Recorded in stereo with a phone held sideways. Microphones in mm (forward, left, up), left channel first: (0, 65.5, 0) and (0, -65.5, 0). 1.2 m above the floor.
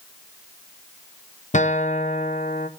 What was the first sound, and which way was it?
A guitar, 65° left (ahead or behind).